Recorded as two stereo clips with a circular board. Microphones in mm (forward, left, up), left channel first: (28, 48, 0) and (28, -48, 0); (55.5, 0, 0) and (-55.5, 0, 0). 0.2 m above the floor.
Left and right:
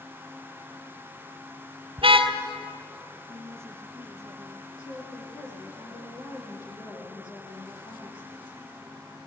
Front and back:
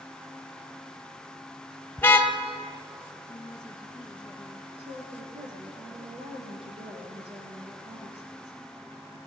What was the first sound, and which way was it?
A car horn, 70° right.